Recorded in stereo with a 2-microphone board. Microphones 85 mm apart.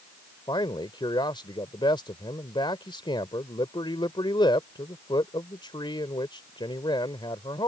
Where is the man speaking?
70° left (ahead or behind).